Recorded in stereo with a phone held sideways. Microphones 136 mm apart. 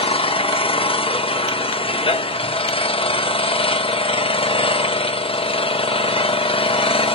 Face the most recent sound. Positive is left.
turn(degrees=45)  # may be behind; listen again after turning